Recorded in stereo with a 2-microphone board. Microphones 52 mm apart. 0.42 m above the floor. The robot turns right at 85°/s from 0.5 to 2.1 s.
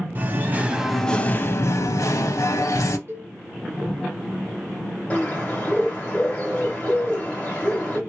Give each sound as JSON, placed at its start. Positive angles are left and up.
{"t": 0.1, "sound": "singing", "azimuth_deg": -35, "distance_m": 0.5}
{"t": 3.1, "sound": "a cowbell", "side_deg": -40, "distance_m": 1.1}
{"t": 5.1, "sound": "a bird", "side_deg": 25, "distance_m": 2.0}